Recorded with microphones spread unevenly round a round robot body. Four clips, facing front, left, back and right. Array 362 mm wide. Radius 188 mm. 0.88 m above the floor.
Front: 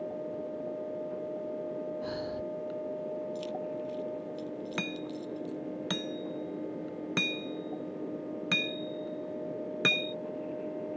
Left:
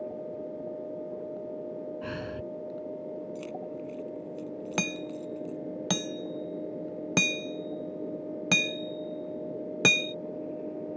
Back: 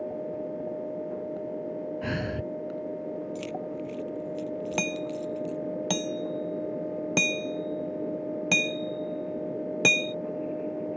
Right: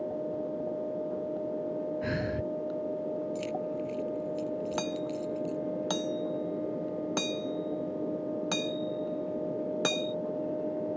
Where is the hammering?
110° left.